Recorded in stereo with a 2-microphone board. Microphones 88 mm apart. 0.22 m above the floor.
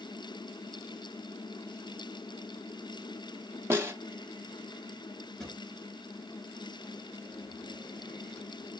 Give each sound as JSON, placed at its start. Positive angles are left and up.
{"t": 3.7, "sound": "a snare drum", "side_deg": -30, "distance_m": 0.7}
{"t": 5.4, "sound": "a drawer", "side_deg": 10, "distance_m": 1.7}